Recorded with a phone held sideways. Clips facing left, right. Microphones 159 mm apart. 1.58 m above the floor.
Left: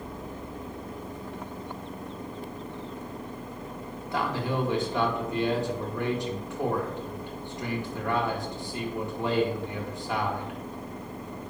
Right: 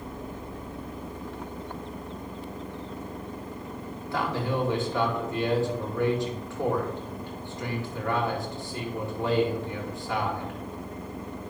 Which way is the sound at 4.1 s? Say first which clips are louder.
Right 1 dB; 15° left (ahead or behind).